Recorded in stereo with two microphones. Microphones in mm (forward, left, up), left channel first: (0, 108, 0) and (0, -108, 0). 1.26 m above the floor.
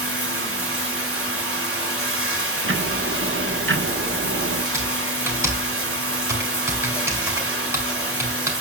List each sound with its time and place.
0.0 s running water: 85° right, 3.5 m
2.6 s ticking: 65° right (ahead or behind), 1.3 m
4.7 s typing on a keyboard: 10° right (ahead or behind), 3.5 m